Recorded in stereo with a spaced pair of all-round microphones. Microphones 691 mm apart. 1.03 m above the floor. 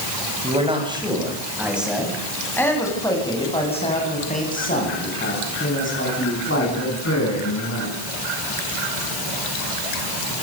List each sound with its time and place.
0.4 s a man speaking: 10° right (ahead or behind), 8 m; by 8.0 s 20° left (ahead or behind), 13 m